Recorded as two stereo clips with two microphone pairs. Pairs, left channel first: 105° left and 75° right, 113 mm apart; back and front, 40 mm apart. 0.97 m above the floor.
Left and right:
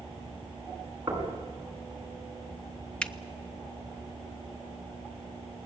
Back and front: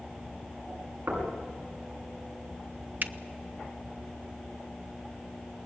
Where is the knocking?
10° right, 6.5 m.